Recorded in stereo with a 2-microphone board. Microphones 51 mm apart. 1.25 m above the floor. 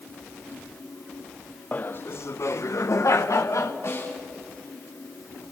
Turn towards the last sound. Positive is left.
turn(degrees=70)  # may be behind; listen again after turning